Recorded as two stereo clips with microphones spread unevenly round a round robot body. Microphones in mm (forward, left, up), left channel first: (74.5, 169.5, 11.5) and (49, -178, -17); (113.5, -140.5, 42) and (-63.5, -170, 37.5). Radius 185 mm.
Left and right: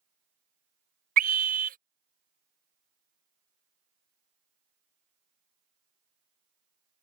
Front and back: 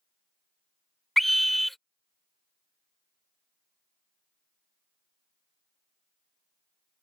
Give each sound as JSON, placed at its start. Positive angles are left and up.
{"t": 1.2, "sound": "a scream", "azimuth_deg": -80}